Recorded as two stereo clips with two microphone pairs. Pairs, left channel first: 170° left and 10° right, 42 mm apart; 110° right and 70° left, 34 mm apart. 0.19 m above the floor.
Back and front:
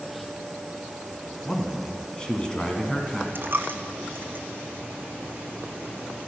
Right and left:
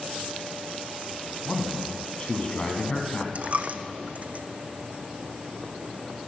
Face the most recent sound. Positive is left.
turn(degrees=25)